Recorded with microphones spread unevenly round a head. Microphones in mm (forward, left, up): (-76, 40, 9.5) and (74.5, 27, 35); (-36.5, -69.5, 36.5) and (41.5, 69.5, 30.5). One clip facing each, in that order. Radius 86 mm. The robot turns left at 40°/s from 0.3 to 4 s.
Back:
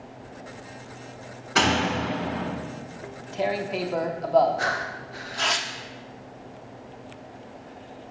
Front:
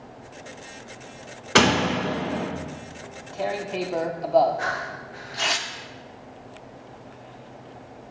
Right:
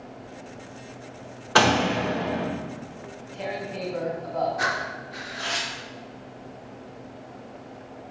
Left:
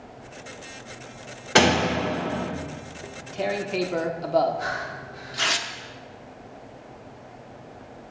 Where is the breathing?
130° right, 0.6 m.